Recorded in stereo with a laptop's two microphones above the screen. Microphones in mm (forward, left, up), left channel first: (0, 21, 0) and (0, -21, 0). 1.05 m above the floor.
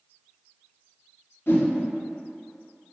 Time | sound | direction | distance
1.5 | a whoosh | 55° left (ahead or behind) | 0.8 m